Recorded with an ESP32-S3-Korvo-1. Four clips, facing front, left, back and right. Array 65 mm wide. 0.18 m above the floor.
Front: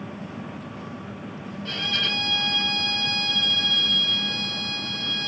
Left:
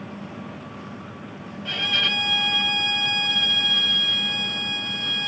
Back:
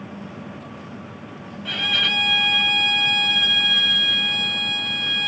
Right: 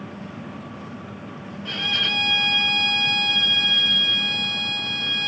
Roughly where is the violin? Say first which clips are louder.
Left 1 dB, back 5 dB; behind.